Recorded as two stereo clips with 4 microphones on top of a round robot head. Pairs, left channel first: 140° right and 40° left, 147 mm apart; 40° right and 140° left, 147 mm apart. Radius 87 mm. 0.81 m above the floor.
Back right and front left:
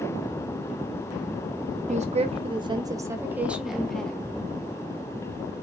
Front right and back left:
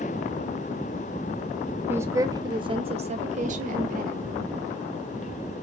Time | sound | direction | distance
1.9 | a woman speaking | 65° left | 1.5 m